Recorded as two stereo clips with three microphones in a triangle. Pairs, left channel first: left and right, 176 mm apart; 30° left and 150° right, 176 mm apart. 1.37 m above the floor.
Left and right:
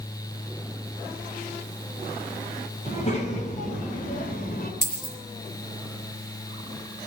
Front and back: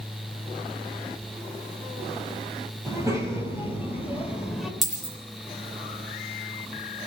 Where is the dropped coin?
120° left, 4 m.